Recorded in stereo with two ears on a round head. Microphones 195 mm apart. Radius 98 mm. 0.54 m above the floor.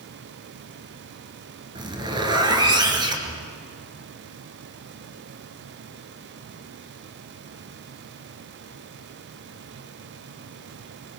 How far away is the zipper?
About 3 m.